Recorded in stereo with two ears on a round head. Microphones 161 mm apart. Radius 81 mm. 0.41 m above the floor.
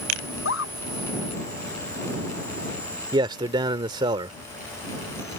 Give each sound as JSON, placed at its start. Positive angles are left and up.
{"t": 0.3, "sound": "a scream", "side_deg": 85}
{"t": 3.1, "sound": "a man speaking", "side_deg": -25}